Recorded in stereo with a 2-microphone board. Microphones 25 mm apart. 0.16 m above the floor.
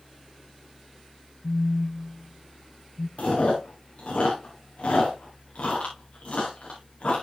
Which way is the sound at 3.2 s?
55° left (ahead or behind).